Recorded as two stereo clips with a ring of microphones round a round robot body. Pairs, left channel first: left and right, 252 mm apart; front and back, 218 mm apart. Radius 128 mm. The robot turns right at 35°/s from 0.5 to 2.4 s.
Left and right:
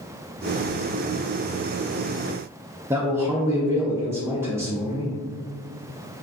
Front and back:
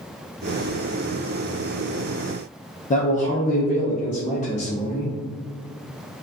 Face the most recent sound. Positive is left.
turn(degrees=-20)